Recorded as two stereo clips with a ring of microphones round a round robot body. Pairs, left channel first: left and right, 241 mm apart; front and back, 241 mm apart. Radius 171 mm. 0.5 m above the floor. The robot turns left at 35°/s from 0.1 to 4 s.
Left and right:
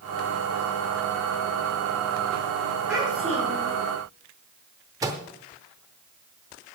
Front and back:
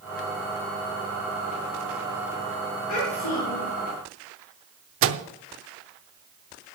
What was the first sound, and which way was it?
A child speaking, straight ahead.